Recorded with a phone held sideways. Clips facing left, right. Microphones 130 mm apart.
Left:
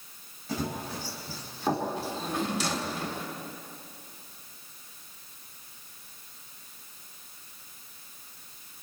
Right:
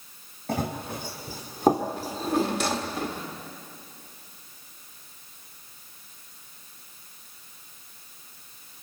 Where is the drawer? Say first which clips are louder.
Right 5 dB; 60° right (ahead or behind), 1.6 m.